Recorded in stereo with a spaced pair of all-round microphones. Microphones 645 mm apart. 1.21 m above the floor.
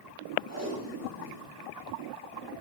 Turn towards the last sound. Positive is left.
turn(degrees=-25)  # may be behind; listen again after turning